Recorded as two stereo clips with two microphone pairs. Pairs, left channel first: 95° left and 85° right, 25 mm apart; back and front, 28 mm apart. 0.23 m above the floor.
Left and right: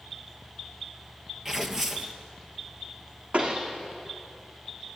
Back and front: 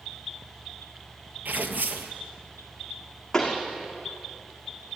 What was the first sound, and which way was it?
Tearing paper, 10° right.